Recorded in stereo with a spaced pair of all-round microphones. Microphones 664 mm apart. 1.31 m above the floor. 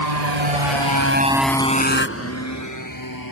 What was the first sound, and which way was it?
A motorcycle, 80° right.